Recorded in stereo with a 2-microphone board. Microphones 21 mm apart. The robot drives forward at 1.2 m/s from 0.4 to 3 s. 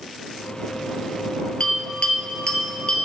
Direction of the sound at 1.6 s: 50° left (ahead or behind).